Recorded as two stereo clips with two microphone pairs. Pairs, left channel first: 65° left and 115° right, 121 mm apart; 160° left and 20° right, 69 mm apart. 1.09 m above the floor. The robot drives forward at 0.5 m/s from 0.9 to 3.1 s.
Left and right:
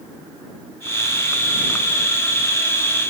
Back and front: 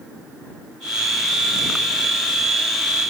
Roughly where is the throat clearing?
I don't hear throat clearing.